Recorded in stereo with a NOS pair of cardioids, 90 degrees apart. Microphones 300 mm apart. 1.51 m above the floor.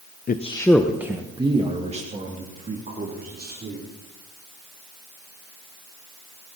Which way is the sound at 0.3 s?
30° left.